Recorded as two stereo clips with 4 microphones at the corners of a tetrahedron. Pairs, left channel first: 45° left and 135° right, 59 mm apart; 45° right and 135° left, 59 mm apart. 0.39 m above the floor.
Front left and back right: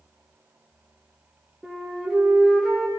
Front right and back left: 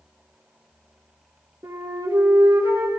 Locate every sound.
1.6 s a flute: 130° left, 7.5 m